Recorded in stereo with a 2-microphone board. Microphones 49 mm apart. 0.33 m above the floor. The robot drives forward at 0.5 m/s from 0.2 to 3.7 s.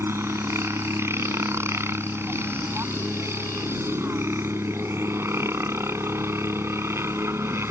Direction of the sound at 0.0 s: 65° right (ahead or behind).